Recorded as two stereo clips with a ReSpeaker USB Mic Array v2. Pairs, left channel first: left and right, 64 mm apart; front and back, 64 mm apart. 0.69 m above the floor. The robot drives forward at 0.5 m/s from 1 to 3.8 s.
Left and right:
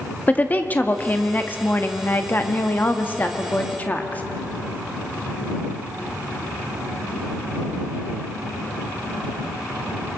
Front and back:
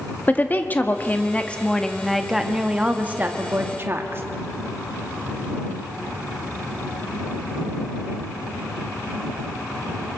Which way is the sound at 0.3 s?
45° left.